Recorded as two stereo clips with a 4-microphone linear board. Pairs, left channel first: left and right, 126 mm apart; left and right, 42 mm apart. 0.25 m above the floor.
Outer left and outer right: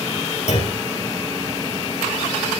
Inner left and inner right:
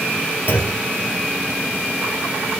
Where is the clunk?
60° left (ahead or behind), 2 m.